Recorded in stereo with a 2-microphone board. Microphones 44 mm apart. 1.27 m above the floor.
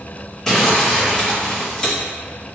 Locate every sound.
0.5 s crumpling: 10° left (ahead or behind), 0.9 m